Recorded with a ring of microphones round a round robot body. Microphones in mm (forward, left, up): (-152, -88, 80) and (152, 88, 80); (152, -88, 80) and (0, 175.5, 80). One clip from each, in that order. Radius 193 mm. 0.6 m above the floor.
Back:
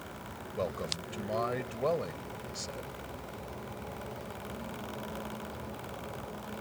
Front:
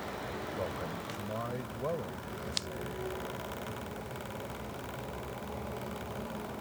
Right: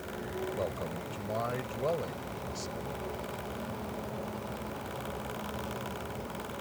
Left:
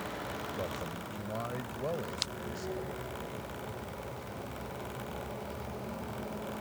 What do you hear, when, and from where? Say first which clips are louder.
0.6 s a man speaking: back 7 dB, right 3 dB; 135° right